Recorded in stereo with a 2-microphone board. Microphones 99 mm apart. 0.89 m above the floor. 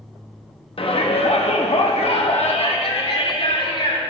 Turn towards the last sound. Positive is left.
turn(degrees=60)  # may be behind; listen again after turning